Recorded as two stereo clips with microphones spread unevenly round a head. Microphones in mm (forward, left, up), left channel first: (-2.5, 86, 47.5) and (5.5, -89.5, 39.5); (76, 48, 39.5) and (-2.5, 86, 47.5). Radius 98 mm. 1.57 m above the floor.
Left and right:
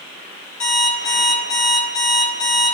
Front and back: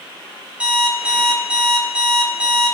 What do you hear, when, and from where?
0.6 s an alarm clock: 85° left, 1.7 m